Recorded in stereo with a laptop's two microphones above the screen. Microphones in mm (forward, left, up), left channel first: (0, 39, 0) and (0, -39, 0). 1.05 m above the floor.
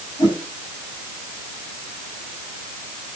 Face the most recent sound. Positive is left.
turn(degrees=90)